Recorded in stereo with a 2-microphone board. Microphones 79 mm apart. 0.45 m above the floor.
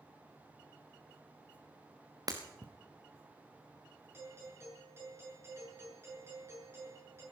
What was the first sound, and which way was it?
Breaking glass, 50° right (ahead or behind).